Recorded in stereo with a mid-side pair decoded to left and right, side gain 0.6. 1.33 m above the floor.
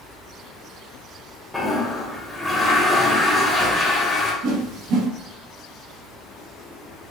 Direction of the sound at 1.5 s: 5° left.